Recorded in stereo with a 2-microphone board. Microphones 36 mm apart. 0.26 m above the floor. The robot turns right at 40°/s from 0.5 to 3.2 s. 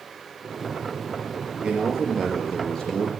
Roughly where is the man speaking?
Ahead right.